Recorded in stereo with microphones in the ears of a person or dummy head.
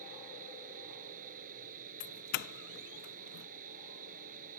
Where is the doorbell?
50° left (ahead or behind).